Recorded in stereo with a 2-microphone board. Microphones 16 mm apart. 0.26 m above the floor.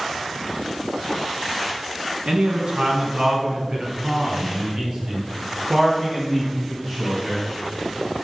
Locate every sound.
2.3 s a man speaking: 60° right (ahead or behind), 2.5 m; by 7.4 s 25° right (ahead or behind), 4.5 m